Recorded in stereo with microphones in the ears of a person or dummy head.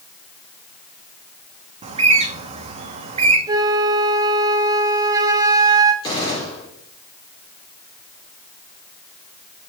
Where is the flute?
20° right (ahead or behind), 1.4 m.